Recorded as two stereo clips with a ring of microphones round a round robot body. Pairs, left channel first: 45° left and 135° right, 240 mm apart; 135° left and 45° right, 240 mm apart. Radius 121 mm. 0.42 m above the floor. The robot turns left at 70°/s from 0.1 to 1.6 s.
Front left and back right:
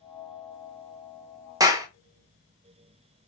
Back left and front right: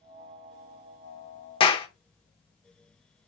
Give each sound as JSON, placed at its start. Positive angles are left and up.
{"t": 1.6, "sound": "a clap", "azimuth_deg": 170, "distance_m": 0.6}